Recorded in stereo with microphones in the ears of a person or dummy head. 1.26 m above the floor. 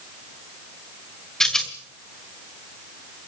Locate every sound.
1.4 s a rattle: centre (ahead or behind), 1.7 m